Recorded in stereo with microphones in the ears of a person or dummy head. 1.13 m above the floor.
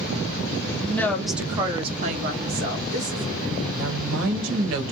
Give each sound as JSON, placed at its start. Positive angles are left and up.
{"t": 0.8, "sound": "a woman speaking", "side_deg": 15, "distance_m": 0.9}
{"t": 3.7, "sound": "a woman speaking", "side_deg": -75, "distance_m": 1.0}